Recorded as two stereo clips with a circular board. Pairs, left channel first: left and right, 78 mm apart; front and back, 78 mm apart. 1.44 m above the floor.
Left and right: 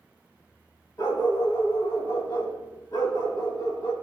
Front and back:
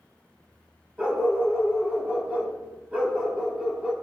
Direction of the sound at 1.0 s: 110° left.